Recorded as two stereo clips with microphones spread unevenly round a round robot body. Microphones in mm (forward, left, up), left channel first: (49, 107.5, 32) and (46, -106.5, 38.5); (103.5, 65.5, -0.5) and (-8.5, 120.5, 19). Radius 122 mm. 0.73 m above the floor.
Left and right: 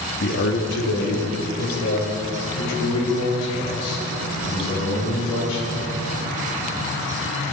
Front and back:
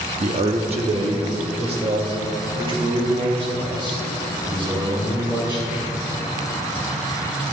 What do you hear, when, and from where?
0.2 s a man speaking: 120° left, 1.0 m; by 5.9 s 105° left, 7 m